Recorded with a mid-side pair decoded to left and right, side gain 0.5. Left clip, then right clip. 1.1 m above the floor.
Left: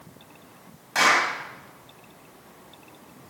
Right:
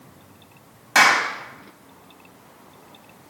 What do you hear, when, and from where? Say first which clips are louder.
0.9 s a clap: right 4 dB; 55° right, 4.5 m